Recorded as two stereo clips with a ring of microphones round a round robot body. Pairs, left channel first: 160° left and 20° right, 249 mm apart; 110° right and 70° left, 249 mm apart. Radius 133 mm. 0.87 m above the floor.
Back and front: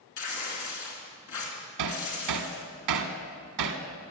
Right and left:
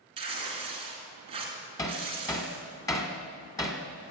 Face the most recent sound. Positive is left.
turn(degrees=-35)